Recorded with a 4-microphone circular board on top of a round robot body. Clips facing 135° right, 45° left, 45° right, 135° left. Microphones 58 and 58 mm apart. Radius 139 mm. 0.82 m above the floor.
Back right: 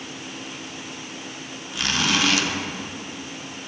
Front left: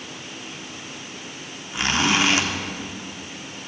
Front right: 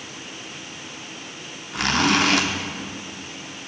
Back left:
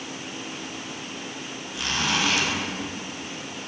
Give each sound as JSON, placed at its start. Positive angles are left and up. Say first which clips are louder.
{"t": 1.7, "sound": "a zipper", "louder": "front left 2 dB, front right 7 dB", "azimuth_deg": -20, "distance_m": 2.5}